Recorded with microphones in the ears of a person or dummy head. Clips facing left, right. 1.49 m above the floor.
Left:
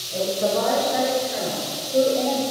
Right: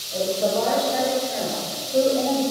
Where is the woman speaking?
10° left (ahead or behind), 6.5 m; by 2.4 s centre (ahead or behind), 4 m.